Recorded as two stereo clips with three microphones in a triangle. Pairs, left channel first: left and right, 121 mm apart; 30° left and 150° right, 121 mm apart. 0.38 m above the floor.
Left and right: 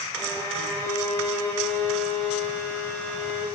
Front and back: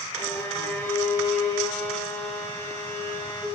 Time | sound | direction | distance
0.1 | a violin | 60° left | 1.0 m